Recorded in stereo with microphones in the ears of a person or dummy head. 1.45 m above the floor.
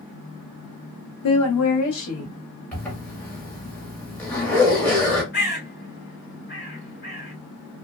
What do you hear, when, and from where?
1.2 s a woman speaking: 70° left (ahead or behind), 0.6 m; by 2.4 s 80° left, 1.6 m
2.7 s a zipper: 5° left (ahead or behind), 1.1 m
5.3 s a bird: 55° left (ahead or behind), 1.8 m